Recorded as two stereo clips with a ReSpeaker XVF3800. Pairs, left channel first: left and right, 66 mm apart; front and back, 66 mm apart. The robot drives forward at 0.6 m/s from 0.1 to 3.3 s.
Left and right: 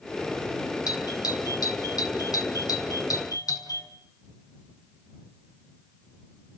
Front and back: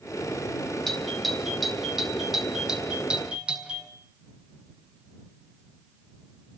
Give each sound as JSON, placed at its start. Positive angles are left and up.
{"t": 0.9, "sound": "a doorbell", "azimuth_deg": 85, "distance_m": 4.5}